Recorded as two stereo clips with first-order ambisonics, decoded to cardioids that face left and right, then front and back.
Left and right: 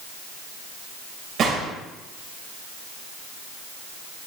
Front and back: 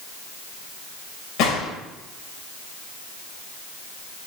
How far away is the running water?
No running water in this recording.